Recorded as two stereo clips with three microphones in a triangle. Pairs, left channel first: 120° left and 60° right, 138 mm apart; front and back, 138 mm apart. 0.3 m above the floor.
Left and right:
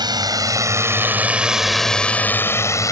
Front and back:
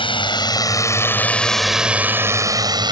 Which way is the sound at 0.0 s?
20° right.